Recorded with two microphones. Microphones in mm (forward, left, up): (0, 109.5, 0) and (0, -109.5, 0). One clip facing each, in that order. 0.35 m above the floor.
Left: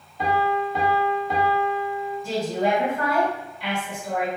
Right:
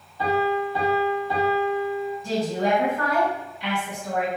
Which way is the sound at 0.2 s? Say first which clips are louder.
Right 1 dB; 20° left (ahead or behind).